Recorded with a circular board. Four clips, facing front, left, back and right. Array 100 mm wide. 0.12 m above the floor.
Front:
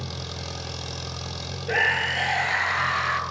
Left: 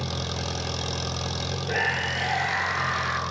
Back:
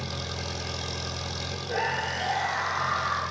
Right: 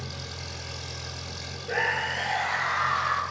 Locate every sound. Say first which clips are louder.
0.0 s an engine running: left 8 dB, back 1 dB; 90° left, 1.4 m
1.7 s a scream: right 1 dB, front 4 dB; 15° left, 2 m